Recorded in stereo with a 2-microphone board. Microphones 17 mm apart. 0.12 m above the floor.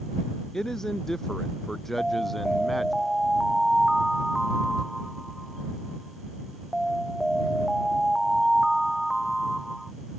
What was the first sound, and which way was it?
A man speaking, 30° left (ahead or behind).